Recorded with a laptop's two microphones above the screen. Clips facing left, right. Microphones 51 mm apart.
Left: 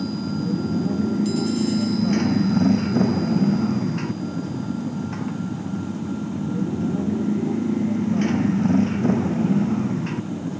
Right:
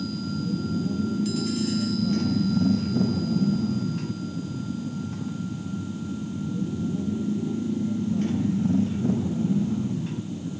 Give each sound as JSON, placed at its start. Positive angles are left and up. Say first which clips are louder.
{"t": 0.0, "sound": "a motorcycle", "louder": "left 4 dB", "side_deg": 55}